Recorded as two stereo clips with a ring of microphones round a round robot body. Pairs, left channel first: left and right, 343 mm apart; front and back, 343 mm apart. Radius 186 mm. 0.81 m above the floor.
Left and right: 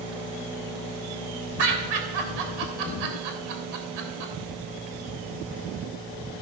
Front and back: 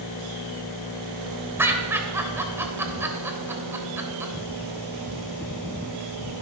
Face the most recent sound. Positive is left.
turn(degrees=-95)